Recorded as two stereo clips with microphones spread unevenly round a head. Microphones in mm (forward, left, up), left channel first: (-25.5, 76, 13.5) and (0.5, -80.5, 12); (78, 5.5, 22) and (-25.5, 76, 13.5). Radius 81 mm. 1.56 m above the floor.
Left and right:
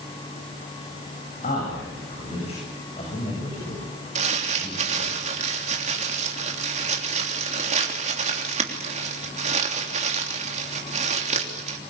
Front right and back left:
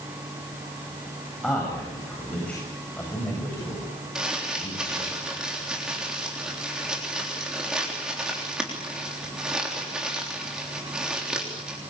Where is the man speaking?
50° left, 9 m; by 5.2 s 35° left, 7.5 m.